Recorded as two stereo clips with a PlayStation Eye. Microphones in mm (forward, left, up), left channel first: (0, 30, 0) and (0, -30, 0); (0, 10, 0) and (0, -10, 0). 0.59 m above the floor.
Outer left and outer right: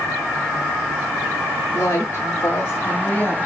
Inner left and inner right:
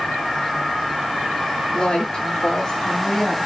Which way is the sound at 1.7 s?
45° left (ahead or behind).